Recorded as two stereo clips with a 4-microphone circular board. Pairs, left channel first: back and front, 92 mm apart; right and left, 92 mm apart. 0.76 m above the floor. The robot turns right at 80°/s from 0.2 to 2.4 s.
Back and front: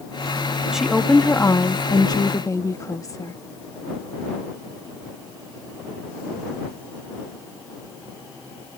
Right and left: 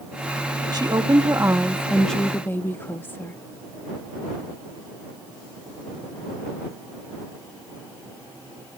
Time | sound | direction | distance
0.7 | a woman speaking | 80° left | ?